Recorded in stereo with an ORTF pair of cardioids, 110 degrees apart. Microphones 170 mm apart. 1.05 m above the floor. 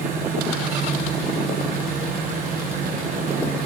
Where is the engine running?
55° right, 9.5 m.